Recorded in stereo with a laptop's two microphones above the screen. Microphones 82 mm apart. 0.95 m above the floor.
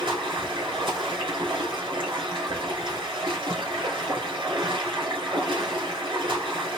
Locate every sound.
0.0 s running water: 80° right, 3 m